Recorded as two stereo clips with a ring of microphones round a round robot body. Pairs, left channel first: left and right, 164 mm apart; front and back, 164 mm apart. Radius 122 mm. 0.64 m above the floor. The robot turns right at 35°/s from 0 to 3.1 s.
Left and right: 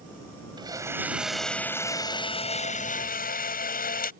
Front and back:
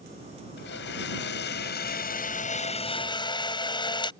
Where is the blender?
25° right; by 4.1 s 60° left.